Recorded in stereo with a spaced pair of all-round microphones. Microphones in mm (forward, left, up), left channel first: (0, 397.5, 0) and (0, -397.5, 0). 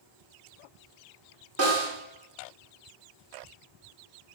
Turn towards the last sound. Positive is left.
turn(degrees=-20)  # may be behind; listen again after turning